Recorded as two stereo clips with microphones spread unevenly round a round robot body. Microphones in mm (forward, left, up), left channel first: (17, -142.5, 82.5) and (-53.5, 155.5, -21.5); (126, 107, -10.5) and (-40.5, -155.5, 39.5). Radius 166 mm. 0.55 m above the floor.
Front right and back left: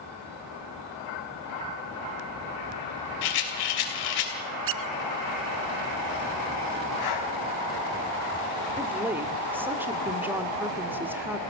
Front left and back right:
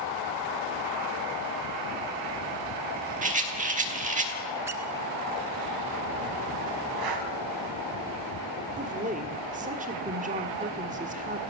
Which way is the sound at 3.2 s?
55° right.